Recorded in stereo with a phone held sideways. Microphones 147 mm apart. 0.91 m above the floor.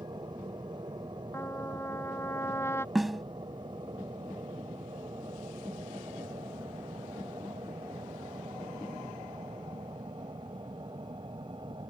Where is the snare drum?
Centre (ahead or behind).